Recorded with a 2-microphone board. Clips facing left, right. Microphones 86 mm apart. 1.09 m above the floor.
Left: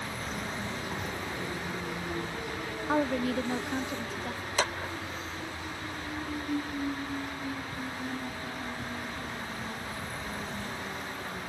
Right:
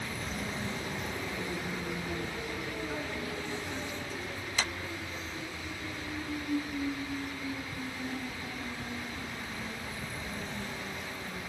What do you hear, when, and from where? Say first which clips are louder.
2.9 s a woman speaking: left 9 dB; 75° left (ahead or behind)
4.6 s a clap: left 6 dB; 50° left (ahead or behind)